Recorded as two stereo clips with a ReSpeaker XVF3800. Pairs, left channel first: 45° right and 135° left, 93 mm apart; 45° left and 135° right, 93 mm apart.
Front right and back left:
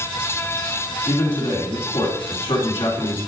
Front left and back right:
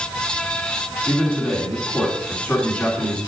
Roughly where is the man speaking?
Ahead right.